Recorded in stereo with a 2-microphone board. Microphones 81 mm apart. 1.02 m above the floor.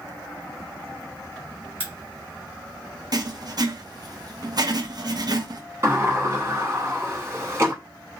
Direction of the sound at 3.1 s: 50° right (ahead or behind).